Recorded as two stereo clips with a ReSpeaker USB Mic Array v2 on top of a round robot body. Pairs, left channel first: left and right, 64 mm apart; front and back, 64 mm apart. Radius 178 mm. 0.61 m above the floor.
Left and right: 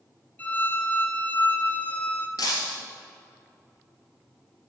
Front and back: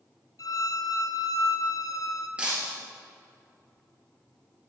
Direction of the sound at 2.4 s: 105° left.